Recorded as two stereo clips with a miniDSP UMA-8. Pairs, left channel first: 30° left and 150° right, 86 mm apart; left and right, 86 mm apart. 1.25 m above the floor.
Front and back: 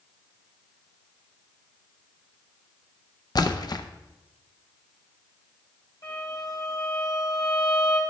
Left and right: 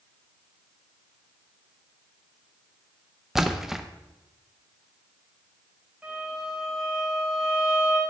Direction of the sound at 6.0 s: 10° right.